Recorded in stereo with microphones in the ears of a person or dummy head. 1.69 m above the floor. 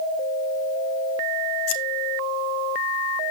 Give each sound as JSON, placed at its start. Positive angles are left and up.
{"t": 1.7, "sound": "scissors", "side_deg": 75, "distance_m": 1.3}